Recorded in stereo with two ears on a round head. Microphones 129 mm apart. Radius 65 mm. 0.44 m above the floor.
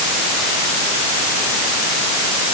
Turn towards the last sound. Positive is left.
No sound to turn to.